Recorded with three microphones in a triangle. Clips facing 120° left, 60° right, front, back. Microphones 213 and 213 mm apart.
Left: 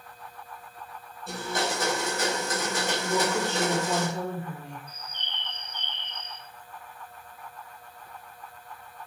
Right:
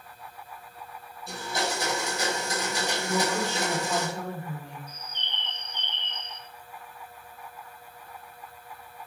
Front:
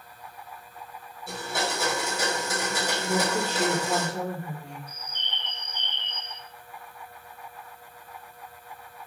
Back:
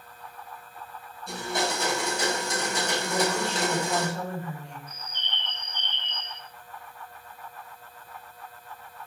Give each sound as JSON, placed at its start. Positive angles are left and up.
{"t": 1.3, "sound": "a blender", "azimuth_deg": 85, "distance_m": 5.0}
{"t": 3.1, "sound": "a woman speaking", "azimuth_deg": 55, "distance_m": 5.5}
{"t": 4.9, "sound": "a bird", "azimuth_deg": 115, "distance_m": 4.5}